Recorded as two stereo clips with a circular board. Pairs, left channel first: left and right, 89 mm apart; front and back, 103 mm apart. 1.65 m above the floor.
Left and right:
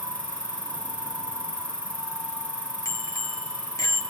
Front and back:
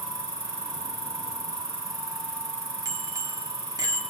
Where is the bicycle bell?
130° left, 2.5 m.